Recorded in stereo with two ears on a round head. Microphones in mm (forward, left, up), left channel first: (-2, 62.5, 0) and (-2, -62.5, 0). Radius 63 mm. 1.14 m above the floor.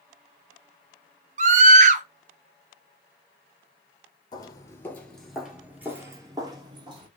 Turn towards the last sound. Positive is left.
turn(degrees=-35)  # may be behind; listen again after turning